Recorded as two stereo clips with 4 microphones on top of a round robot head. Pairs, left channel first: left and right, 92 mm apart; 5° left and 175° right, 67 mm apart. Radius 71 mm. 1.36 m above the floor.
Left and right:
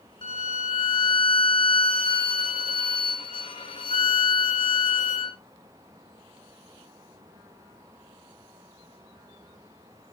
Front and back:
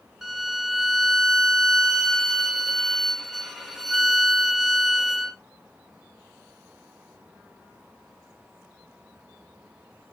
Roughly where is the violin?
Left.